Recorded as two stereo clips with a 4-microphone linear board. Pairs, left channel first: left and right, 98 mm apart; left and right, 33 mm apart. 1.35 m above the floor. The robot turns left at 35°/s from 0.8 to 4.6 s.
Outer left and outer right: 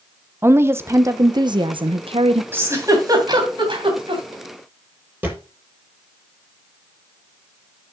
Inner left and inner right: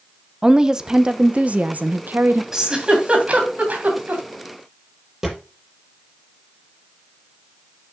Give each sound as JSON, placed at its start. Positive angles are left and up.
{"t": 0.4, "sound": "a woman speaking", "azimuth_deg": -25, "distance_m": 0.9}
{"t": 2.5, "sound": "a giggle", "side_deg": -20, "distance_m": 3.0}
{"t": 5.2, "sound": "a thud", "side_deg": -20, "distance_m": 6.5}